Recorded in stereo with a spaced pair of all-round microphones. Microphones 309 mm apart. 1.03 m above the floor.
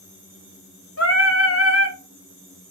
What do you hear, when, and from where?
1.0 s singing: 50° left (ahead or behind), 0.9 m